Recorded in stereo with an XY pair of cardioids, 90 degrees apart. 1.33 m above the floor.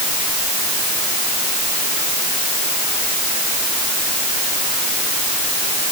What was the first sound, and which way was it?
Only background noise.